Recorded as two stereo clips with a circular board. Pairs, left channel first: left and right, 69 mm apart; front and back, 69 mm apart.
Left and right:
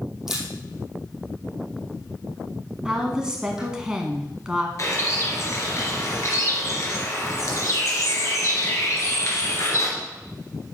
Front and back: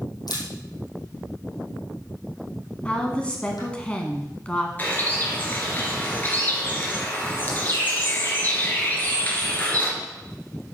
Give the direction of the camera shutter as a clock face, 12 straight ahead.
12 o'clock.